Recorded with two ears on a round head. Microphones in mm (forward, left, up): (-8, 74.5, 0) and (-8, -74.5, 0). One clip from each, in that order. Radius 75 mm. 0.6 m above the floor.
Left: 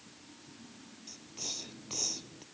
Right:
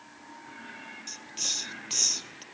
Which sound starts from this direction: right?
A hiss, at 1.1 s.